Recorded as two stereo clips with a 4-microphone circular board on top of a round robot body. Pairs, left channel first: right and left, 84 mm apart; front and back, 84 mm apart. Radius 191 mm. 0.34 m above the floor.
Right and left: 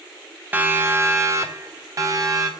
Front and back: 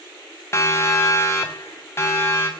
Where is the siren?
35° left, 2 m; by 2.5 s 55° left, 3.5 m.